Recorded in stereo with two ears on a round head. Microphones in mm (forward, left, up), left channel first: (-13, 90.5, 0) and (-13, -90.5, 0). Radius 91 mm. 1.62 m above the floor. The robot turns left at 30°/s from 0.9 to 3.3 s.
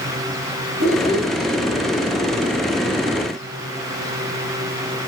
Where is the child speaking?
60° right (ahead or behind), 2 m; by 1.3 s 50° right (ahead or behind), 2 m.